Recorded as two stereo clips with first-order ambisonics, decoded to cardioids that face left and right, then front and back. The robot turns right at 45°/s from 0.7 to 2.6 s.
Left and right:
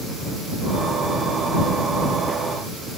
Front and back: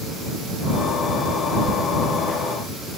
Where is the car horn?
I don't hear a car horn.